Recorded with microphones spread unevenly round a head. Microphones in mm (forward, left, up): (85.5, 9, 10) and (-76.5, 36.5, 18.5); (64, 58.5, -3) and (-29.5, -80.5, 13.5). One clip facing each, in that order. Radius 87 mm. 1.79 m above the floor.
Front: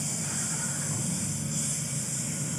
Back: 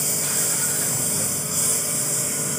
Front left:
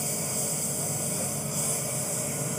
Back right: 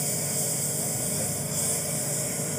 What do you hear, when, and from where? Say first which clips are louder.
0.0 s a lawn mower: back 5 dB, back right 1 dB; 150° left